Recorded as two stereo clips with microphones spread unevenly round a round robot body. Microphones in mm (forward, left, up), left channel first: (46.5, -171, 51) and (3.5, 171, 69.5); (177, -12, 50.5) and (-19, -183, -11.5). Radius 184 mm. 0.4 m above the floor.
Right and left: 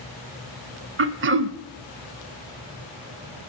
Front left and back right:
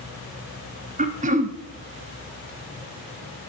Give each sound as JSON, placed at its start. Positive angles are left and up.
{"t": 1.0, "sound": "throat clearing", "azimuth_deg": 155, "distance_m": 0.7}